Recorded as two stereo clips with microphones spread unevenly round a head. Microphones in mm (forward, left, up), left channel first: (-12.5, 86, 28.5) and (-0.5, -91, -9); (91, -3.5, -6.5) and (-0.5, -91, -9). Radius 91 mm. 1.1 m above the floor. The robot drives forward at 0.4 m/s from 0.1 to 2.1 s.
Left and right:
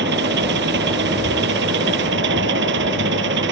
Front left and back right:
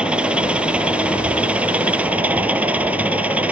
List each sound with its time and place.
0.0 s an engine running: 55° right